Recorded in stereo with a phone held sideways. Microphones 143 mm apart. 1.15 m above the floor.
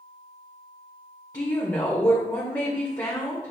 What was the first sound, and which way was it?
A woman speaking, 25° left (ahead or behind).